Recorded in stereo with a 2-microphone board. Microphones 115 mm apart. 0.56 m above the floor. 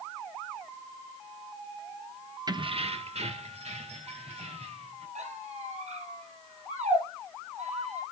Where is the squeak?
80° right, 4.5 m.